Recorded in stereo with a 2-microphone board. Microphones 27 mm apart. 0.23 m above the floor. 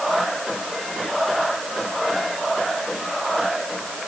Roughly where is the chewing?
I don't hear chewing.